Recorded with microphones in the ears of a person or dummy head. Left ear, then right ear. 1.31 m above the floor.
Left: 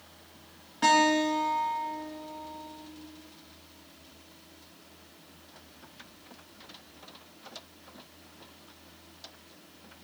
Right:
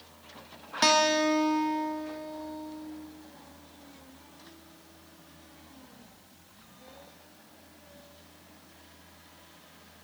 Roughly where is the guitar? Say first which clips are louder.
Even; right.